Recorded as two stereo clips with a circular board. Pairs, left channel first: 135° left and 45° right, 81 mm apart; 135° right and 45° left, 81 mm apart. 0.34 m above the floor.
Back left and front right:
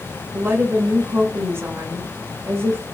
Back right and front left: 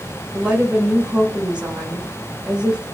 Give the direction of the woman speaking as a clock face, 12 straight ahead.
1 o'clock.